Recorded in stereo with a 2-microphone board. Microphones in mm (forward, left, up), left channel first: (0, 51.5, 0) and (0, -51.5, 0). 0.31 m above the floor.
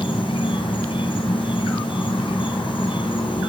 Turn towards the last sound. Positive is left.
turn(degrees=60)  # may be behind; listen again after turning